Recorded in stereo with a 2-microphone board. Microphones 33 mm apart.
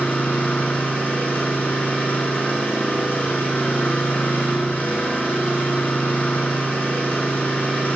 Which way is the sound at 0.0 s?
50° left (ahead or behind).